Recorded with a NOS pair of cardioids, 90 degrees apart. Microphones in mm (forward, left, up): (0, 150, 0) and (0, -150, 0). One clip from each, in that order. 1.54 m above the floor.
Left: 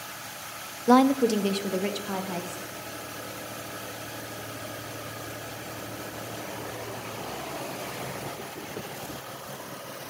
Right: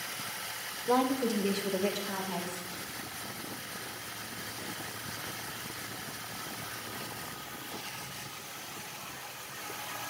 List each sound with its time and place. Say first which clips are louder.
0.9 s a woman speaking: left 8 dB; 45° left, 0.6 m